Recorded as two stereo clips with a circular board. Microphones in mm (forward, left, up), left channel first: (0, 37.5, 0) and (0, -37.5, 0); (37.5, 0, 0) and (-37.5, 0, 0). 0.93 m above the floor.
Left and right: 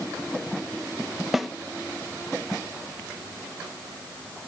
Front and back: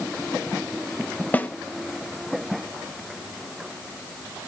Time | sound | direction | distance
1.3 | a snare drum | 10° right | 0.6 m